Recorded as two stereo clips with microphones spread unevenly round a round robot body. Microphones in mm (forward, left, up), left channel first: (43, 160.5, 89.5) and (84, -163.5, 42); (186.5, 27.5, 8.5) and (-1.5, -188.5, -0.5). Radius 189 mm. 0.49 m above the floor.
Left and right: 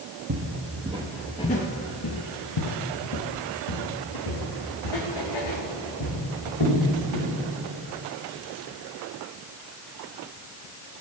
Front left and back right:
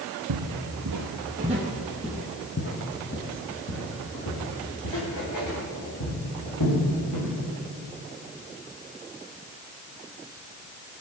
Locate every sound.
0.3 s footsteps: 140° right, 1.2 m; by 7.3 s 85° left, 5 m